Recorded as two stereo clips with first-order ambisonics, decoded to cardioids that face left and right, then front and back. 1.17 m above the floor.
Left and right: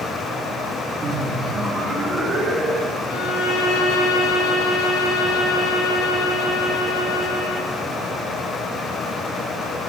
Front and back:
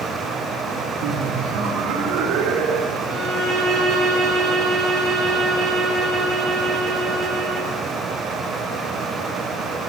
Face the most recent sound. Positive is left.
turn(degrees=125)